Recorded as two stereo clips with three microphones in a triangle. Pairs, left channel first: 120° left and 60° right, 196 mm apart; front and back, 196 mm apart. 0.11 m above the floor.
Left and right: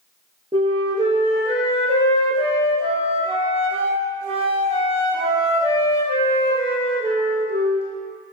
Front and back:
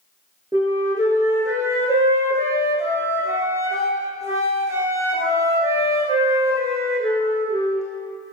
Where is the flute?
110° right, 1.0 m.